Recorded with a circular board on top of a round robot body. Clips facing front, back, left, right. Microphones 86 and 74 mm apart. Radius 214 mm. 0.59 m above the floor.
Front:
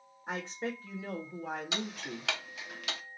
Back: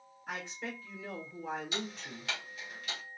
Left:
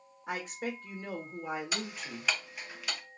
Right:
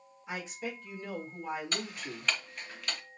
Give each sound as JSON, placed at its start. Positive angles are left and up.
{"t": 0.3, "sound": "a woman speaking", "azimuth_deg": 60, "distance_m": 1.8}
{"t": 1.7, "sound": "ticking", "azimuth_deg": 5, "distance_m": 0.7}